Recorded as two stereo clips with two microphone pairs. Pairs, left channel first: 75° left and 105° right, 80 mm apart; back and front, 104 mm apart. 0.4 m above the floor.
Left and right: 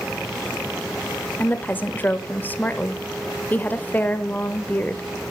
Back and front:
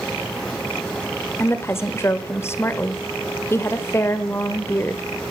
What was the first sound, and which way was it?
A woman speaking, 130° left.